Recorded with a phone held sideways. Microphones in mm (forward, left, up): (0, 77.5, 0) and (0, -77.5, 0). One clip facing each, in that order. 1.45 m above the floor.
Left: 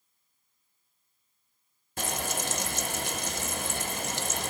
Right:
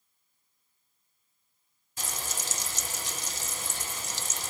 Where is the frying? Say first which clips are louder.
Left 7 dB; 65° left (ahead or behind), 0.7 m.